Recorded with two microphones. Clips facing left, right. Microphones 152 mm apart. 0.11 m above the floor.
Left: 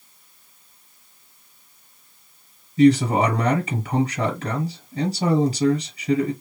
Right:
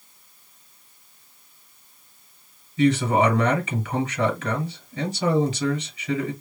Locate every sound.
2.8 s a man speaking: 40° left (ahead or behind), 1.9 m